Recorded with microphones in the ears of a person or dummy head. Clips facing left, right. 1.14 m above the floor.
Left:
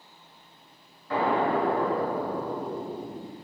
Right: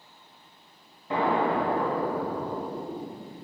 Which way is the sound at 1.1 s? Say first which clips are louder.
Even; 20° right (ahead or behind).